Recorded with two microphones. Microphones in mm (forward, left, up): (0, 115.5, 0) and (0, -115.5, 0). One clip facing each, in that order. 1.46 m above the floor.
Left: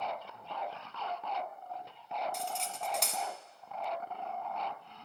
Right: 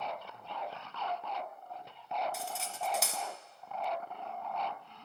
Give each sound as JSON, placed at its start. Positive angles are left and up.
{"t": 2.3, "sound": "cutlery clinking", "side_deg": -5, "distance_m": 0.8}